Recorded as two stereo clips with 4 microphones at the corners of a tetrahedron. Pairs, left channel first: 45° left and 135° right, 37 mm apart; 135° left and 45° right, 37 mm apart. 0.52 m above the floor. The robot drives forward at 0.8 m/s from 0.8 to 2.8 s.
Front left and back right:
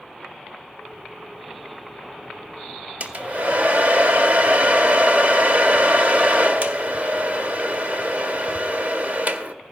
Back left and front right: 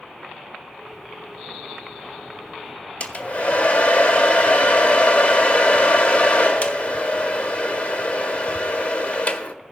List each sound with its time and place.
3.0 s a hair dryer: straight behind, 0.6 m